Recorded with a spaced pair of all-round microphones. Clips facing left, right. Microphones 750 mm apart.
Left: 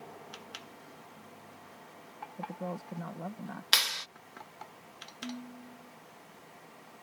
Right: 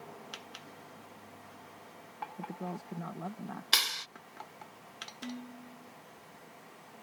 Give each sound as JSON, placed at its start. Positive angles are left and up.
{"t": 2.4, "sound": "a woman speaking", "side_deg": 5}
{"t": 3.7, "sound": "a clap", "side_deg": 20}
{"t": 5.2, "sound": "dishes clattering", "side_deg": 25}